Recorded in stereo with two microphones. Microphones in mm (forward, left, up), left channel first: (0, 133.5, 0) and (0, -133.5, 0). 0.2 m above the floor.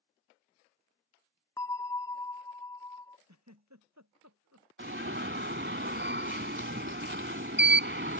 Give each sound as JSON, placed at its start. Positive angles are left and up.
{"t": 1.6, "sound": "a bell", "side_deg": 10}
{"t": 3.3, "sound": "a giggle", "side_deg": -80}
{"t": 4.8, "sound": "an alarm", "side_deg": -45}